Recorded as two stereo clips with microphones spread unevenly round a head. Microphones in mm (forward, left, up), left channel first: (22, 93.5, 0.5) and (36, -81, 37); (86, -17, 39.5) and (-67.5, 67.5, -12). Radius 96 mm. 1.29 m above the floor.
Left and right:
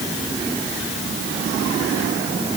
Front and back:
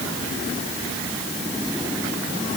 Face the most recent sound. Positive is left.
No sound to turn to.